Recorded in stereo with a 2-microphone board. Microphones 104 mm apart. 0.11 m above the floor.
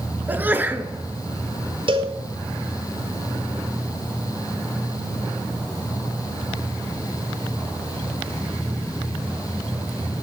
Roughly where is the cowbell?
Right.